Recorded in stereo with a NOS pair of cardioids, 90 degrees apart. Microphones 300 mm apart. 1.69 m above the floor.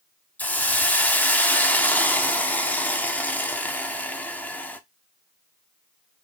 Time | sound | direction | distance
0.4 | a hiss | 5° left | 0.7 m